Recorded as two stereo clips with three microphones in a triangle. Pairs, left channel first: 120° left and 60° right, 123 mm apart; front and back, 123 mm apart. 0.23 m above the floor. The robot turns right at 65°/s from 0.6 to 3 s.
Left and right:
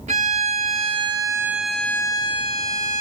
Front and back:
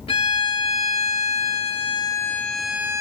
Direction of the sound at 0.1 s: 40° right.